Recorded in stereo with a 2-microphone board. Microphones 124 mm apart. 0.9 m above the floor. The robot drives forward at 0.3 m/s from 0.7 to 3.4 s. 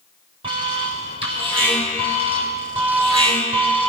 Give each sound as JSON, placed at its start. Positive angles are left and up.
{"t": 0.4, "sound": "an alarm", "side_deg": -50, "distance_m": 6.5}